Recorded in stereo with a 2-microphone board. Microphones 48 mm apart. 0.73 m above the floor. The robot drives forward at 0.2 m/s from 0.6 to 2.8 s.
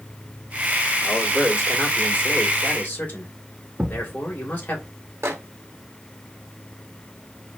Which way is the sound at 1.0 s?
40° left (ahead or behind).